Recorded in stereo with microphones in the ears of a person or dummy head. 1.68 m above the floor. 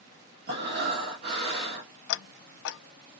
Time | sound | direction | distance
0.5 | breathing | 55° right (ahead or behind) | 1.6 m
2.1 | ticking | 70° left (ahead or behind) | 0.6 m